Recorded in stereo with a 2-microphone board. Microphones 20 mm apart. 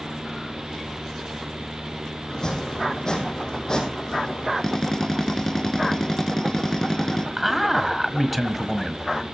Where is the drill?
30° left (ahead or behind), 3.5 m.